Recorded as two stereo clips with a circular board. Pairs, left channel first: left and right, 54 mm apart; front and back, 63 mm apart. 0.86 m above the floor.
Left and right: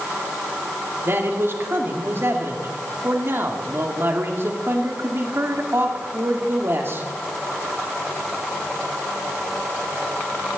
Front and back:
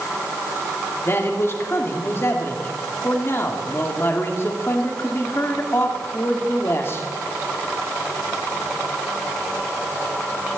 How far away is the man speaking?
About 2 m.